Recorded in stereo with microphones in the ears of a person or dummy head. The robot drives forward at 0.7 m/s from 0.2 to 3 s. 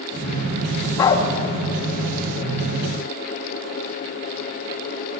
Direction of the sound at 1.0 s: 10° left (ahead or behind).